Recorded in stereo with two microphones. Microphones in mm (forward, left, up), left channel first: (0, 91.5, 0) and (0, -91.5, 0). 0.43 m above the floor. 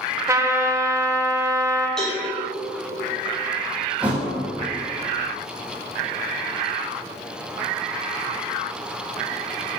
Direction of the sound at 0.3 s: 15° right (ahead or behind).